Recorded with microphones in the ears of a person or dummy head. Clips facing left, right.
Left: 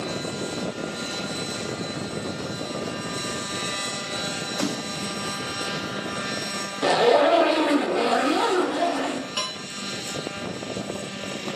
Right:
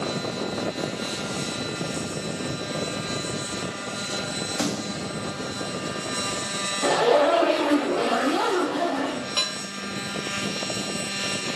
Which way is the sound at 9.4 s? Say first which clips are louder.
Right 1 dB; 20° right (ahead or behind).